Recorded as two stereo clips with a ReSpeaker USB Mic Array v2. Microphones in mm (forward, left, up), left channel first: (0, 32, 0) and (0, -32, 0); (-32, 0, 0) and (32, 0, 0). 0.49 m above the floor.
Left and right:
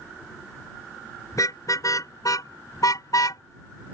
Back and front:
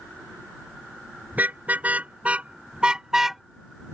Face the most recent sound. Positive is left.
turn(degrees=90)